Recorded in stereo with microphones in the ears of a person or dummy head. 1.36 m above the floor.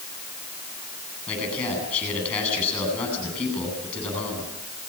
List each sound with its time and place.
1.3 s a man speaking: 5° left (ahead or behind), 10 m